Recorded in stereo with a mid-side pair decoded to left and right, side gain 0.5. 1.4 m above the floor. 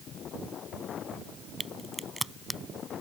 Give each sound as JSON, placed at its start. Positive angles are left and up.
{"t": 1.6, "sound": "a crack", "azimuth_deg": 0}